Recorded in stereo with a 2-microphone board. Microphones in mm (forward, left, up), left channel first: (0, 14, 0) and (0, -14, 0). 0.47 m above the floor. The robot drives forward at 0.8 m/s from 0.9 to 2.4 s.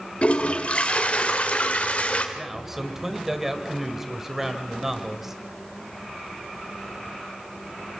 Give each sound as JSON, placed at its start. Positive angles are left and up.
{"t": 0.2, "sound": "a toilet flushing", "side_deg": 50, "distance_m": 2.0}
{"t": 2.4, "sound": "a man speaking", "side_deg": -10, "distance_m": 1.9}